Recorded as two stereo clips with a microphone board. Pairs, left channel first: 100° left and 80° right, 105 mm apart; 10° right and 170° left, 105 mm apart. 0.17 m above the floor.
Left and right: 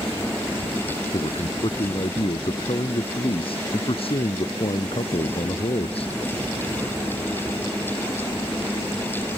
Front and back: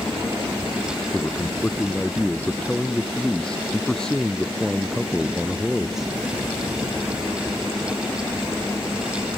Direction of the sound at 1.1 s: 65° left.